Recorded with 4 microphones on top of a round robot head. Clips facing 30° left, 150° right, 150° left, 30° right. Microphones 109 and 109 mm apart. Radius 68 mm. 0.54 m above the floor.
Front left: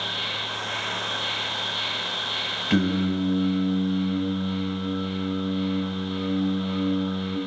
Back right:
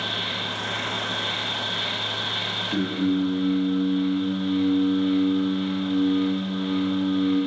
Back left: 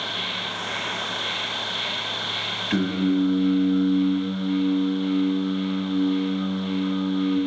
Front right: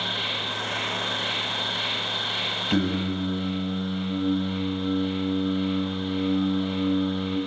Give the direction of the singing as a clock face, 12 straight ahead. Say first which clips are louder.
Even, back left 4 dB; 11 o'clock.